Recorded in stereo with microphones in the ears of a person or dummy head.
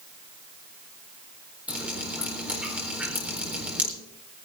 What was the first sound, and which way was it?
Dripping, 10° right (ahead or behind).